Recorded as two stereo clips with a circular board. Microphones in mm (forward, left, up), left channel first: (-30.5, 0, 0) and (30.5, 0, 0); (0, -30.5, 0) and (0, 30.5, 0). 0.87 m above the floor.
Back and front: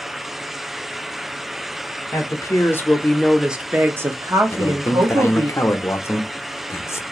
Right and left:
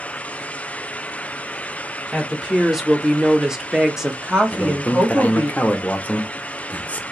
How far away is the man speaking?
About 0.6 m.